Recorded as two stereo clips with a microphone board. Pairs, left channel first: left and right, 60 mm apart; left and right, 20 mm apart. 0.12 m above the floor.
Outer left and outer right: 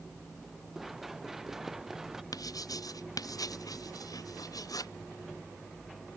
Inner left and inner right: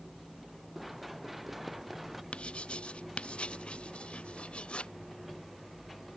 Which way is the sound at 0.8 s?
5° right (ahead or behind).